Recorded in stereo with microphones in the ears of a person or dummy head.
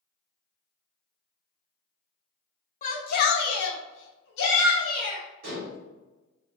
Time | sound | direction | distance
2.8 | a shout | 45° left (ahead or behind) | 0.7 m
5.4 | dishes clattering | 60° right (ahead or behind) | 1.3 m